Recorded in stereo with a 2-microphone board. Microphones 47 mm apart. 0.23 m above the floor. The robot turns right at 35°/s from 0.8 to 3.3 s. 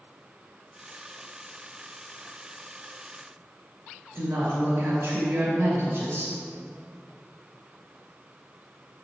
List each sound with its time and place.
4.1 s a woman speaking: 55° right (ahead or behind), 2.5 m